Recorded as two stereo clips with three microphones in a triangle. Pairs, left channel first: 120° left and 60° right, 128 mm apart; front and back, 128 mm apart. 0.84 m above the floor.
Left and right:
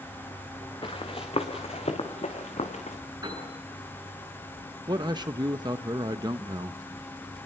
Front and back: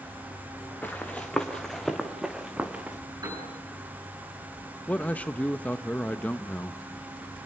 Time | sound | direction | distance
0.8 | running footsteps | 75° left | 3 m
3.2 | a piano | 120° right | 9 m
4.9 | a man speaking | 70° right | 0.6 m